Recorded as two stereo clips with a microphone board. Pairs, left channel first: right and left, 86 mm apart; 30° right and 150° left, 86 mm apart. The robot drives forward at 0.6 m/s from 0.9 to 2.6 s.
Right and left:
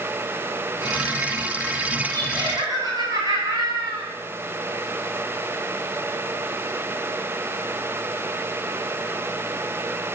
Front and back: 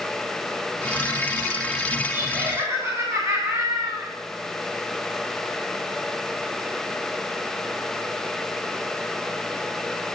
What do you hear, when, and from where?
2.1 s laughter: 85° left, 2.5 m; by 4.1 s 95° left, 2.5 m